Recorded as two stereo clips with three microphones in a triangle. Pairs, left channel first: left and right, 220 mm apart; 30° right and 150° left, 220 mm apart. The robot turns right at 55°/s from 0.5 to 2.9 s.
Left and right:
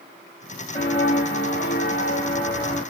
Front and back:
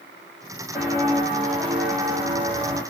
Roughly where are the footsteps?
Left.